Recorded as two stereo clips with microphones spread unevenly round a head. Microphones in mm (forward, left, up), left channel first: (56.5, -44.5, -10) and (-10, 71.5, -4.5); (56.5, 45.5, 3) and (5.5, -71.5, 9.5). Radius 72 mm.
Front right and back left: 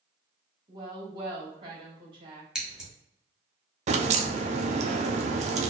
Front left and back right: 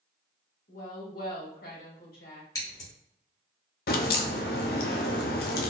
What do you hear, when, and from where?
0.7 s a woman speaking: 65° left, 1.9 m
2.5 s scissors: 50° left, 1.5 m
3.9 s a crack: 80° left, 0.6 m